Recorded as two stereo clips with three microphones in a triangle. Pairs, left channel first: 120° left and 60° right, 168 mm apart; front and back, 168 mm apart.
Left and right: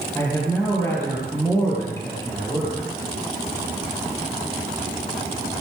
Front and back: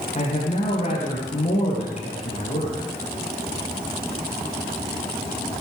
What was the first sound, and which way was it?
A man speaking, 45° left.